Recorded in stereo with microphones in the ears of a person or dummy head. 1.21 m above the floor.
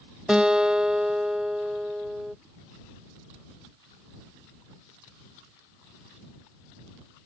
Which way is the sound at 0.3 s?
Centre (ahead or behind).